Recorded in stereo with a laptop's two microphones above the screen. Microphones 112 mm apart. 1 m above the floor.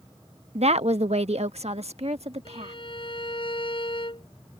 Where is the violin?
50° left (ahead or behind).